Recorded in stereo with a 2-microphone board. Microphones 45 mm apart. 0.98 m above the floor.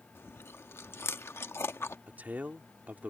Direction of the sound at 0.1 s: 80° left.